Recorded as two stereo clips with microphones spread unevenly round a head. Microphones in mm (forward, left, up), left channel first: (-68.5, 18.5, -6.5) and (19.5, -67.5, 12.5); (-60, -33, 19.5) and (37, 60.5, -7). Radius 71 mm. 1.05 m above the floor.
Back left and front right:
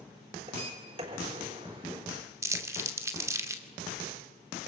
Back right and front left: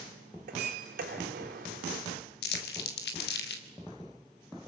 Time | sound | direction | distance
0.5 | a sliding door | 10° left | 4 m
2.4 | crumpling | 115° right | 2.5 m